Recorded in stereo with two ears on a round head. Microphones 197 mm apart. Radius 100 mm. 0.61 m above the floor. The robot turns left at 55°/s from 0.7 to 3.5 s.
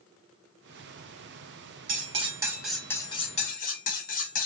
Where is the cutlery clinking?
135° right, 0.7 m; by 4.5 s 135° left, 0.7 m.